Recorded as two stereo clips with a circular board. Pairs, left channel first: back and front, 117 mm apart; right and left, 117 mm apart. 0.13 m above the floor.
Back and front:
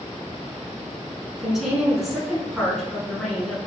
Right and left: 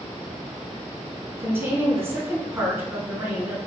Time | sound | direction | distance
1.4 | a woman speaking | 85° left | 1.0 m